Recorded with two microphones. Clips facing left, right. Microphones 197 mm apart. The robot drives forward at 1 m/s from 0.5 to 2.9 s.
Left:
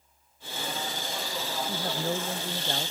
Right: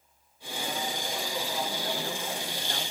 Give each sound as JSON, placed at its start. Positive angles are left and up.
{"t": 1.7, "sound": "a woman speaking", "side_deg": 40}